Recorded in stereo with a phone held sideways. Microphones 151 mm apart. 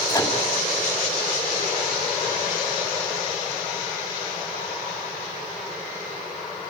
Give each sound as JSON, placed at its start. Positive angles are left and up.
{"t": 0.1, "sound": "a microwave", "side_deg": 25, "distance_m": 2.5}